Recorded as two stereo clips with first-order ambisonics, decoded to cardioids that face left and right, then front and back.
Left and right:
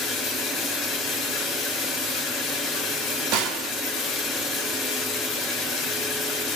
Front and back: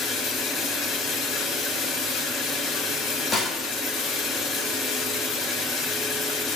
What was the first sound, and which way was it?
Running water, 45° left.